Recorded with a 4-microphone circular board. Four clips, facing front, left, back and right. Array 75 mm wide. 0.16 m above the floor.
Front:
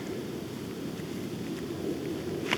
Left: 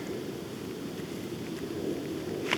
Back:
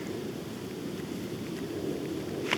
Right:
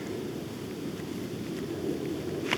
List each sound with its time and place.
Only background noise.